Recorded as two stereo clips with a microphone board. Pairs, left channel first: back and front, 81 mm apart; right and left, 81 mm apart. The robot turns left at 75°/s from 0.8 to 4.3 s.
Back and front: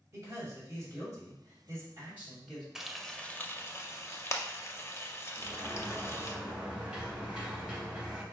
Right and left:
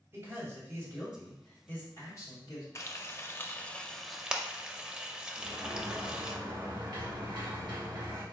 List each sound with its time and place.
0.1 s a man speaking: 40° left, 2.5 m; by 2.6 s 100° right, 2.5 m
2.8 s frying: 80° right, 0.5 m; by 6.4 s 165° left, 0.5 m
5.4 s a sliding door: 75° left, 1.6 m